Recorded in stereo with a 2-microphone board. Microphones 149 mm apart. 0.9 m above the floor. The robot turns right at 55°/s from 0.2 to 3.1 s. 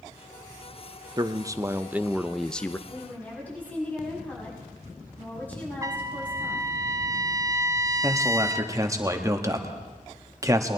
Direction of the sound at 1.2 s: 65° right.